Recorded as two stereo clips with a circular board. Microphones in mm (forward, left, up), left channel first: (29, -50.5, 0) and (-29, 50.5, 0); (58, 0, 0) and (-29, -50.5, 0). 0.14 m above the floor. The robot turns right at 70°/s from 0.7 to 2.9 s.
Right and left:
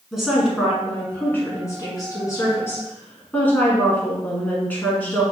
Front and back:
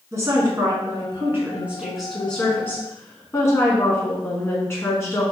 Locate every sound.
0.1 s a woman speaking: 155° right, 1.2 m; by 5.2 s straight ahead, 1.2 m